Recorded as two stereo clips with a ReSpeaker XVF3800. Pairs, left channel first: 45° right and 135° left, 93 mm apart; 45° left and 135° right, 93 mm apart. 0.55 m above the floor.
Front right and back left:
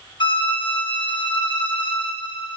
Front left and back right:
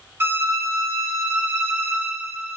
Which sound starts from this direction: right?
A violin, at 0.2 s.